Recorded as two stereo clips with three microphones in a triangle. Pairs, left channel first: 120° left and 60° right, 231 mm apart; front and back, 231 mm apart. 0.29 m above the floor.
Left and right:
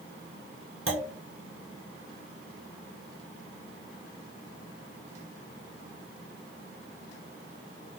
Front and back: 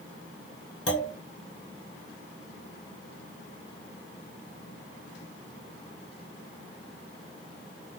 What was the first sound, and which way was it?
A clunk, 25° right.